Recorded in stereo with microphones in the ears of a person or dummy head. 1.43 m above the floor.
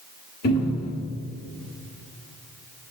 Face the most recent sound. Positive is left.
turn(degrees=50)  # may be behind; listen again after turning